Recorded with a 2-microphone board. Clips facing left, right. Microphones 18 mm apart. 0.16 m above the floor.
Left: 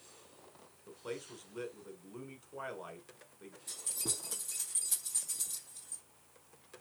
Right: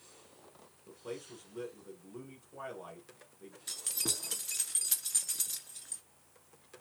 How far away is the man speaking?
About 1.2 m.